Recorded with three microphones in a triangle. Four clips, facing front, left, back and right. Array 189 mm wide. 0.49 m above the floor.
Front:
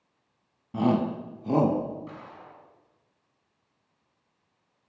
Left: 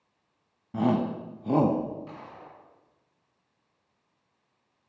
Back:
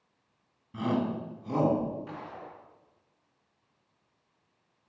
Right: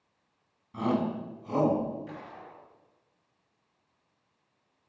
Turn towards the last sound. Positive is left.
turn(degrees=170)